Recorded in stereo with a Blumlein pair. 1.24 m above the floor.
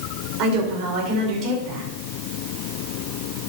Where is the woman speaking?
35° right, 4.5 m.